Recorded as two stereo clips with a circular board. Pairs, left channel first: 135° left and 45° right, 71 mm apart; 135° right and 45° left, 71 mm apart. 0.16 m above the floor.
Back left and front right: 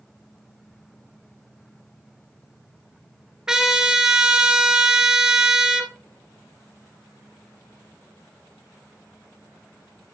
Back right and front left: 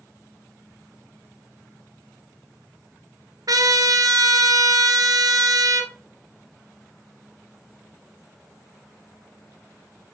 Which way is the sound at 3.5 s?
35° left.